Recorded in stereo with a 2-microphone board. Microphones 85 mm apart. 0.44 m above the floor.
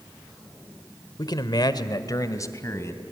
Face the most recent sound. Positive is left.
turn(degrees=30)  # may be behind; listen again after turning